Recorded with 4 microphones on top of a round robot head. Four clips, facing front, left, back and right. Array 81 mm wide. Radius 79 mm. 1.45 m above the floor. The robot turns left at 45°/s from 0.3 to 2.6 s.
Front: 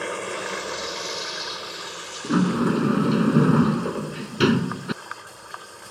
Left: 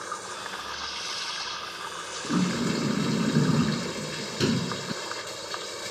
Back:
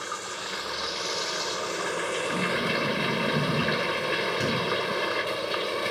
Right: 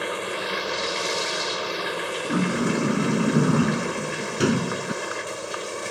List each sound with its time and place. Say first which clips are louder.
0.0 s running water: right 7 dB, front 5 dB; 50° right; by 5.9 s 155° right
2.2 s a sliding door: right 2 dB, front 10 dB; 5° right; by 4.9 s 25° right